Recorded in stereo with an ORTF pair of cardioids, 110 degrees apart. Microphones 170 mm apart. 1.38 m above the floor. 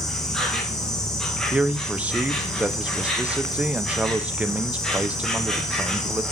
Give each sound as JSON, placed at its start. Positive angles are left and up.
{"t": 0.0, "sound": "an insect", "azimuth_deg": 0, "distance_m": 1.4}
{"t": 1.5, "sound": "a man speaking", "azimuth_deg": -10, "distance_m": 0.7}